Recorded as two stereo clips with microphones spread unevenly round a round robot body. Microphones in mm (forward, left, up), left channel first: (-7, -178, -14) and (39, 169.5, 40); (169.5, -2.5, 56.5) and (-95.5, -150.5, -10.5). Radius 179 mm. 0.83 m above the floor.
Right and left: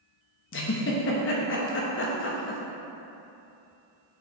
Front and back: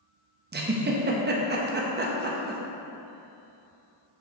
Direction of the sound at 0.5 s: 125° right.